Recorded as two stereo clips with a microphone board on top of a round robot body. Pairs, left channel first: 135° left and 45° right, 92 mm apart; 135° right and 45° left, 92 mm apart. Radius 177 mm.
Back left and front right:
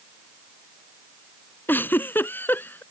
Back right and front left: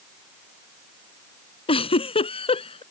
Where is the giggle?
155° right.